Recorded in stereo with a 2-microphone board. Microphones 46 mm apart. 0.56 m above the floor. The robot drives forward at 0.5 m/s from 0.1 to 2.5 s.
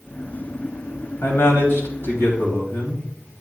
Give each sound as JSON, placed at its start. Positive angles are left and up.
{"t": 1.2, "sound": "a man speaking", "side_deg": 75, "distance_m": 2.5}